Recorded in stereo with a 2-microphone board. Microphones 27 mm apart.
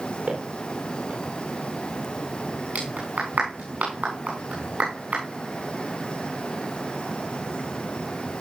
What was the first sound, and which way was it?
Footsteps, 60° right (ahead or behind).